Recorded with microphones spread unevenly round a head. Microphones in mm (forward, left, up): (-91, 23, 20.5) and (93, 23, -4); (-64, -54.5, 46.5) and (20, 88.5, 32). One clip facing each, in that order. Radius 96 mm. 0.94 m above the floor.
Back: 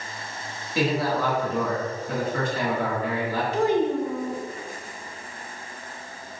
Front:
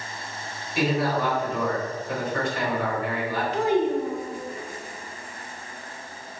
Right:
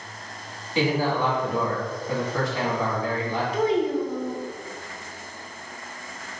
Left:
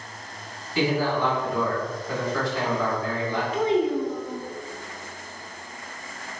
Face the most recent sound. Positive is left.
turn(degrees=-175)